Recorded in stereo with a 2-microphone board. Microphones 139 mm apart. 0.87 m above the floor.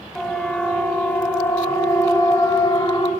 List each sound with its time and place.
0.1 s a siren: 5° left (ahead or behind), 5.5 m; by 3.1 s 35° left (ahead or behind), 6 m